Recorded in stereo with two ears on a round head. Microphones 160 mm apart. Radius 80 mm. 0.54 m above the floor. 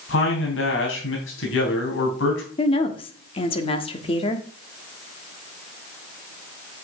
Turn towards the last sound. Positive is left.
turn(degrees=30)  # may be behind; listen again after turning